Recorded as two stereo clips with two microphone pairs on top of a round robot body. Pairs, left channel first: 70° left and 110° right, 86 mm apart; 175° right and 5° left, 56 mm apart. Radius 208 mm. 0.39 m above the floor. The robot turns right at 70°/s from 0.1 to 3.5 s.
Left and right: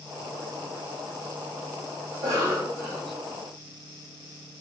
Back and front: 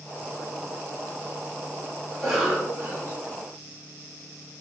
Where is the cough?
90° right, 1.4 m; by 3.1 s 20° right, 1.4 m.